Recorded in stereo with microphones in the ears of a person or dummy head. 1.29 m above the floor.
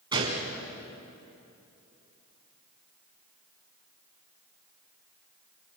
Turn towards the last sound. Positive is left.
turn(degrees=-15)  # may be behind; listen again after turning